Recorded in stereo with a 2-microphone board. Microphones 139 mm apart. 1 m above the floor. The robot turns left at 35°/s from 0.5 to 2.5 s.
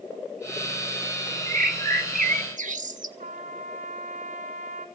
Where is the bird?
75° right, 1.1 m; by 3.1 s 110° right, 1.1 m.